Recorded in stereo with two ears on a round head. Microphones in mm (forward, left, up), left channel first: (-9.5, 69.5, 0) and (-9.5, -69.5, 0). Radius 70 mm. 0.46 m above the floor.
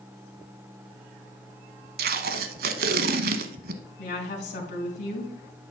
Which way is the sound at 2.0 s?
65° right (ahead or behind).